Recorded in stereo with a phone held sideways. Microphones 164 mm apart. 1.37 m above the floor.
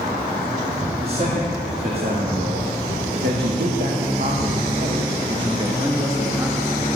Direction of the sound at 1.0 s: 60° right (ahead or behind).